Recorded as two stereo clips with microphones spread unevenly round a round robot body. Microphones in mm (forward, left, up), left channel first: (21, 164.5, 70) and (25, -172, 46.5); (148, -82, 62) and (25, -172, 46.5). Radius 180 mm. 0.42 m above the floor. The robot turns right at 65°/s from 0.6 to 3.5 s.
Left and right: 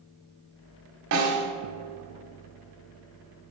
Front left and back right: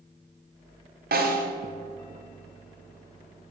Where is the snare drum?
140° right, 1.3 m; by 1.5 s 115° right, 1.3 m.